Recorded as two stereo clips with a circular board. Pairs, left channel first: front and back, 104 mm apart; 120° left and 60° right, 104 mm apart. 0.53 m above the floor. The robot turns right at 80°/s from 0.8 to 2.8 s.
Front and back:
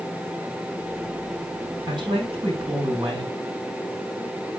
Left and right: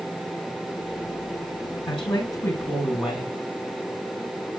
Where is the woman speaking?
140° left, 5.5 m; by 3.4 s 145° right, 5.5 m.